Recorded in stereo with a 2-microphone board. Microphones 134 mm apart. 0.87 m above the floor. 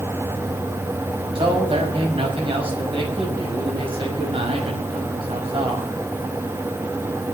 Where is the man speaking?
45° right (ahead or behind), 5.5 m.